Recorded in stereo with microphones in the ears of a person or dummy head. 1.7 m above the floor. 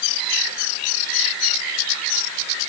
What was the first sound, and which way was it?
Only background noise.